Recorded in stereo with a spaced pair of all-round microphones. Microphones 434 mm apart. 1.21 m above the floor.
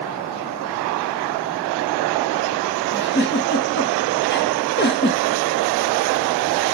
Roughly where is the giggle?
Left.